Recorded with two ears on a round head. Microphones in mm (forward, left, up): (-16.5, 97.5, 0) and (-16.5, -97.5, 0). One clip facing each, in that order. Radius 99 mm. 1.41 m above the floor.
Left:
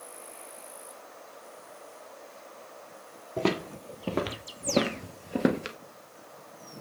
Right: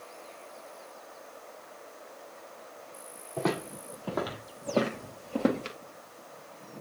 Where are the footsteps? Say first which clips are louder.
Left 2 dB; 35° left (ahead or behind), 2 m; by 5.8 s 15° left (ahead or behind), 1.4 m.